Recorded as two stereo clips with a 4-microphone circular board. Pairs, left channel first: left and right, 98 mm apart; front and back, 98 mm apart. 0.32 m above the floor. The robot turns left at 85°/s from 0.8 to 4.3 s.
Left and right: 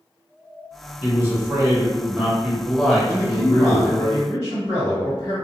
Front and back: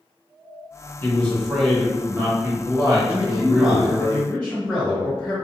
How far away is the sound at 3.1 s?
About 1.7 m.